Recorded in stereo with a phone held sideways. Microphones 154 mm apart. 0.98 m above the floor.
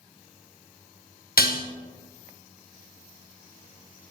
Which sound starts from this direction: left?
Dishes clattering, at 1.4 s.